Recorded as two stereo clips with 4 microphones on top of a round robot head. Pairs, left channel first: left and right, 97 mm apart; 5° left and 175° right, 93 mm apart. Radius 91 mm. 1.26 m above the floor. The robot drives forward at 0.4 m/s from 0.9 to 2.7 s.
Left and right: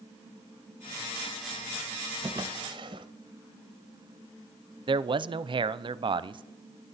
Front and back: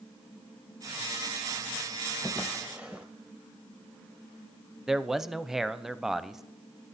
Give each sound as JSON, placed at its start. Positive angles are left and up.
{"t": 2.2, "sound": "a drawer", "azimuth_deg": -55, "distance_m": 0.5}
{"t": 4.9, "sound": "a man speaking", "azimuth_deg": -90, "distance_m": 0.5}